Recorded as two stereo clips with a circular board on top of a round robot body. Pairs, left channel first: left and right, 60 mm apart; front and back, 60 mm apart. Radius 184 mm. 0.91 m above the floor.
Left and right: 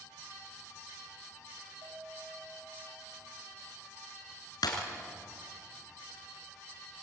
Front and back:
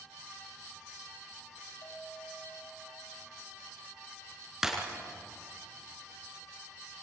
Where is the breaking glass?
95° left, 4 m.